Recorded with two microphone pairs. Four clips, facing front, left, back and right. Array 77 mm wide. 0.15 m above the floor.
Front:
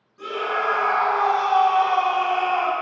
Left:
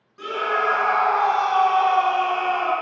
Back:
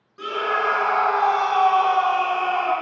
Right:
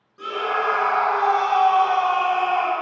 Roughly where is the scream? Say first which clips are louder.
Left 1 dB, back 2 dB; behind.